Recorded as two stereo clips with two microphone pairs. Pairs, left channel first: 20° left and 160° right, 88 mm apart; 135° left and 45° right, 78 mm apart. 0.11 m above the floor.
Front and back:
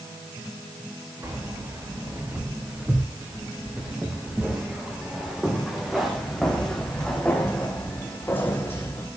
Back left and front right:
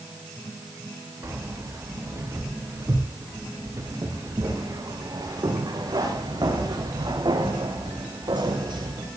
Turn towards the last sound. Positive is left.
turn(degrees=-40)